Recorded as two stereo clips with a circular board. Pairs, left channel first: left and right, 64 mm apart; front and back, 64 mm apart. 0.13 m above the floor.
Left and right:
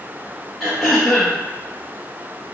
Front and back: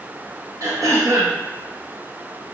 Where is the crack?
I don't hear a crack.